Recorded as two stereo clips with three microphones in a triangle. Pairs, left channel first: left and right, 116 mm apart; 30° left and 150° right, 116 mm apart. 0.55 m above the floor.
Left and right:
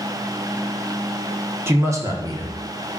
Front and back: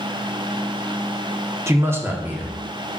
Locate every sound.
1.7 s a man speaking: 125° right, 1.2 m; by 3.0 s 70° right, 1.5 m